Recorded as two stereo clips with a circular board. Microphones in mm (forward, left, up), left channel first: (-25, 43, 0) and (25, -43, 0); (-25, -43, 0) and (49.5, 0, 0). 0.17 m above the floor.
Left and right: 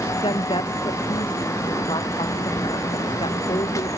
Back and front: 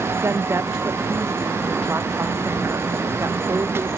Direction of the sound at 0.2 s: 85° left.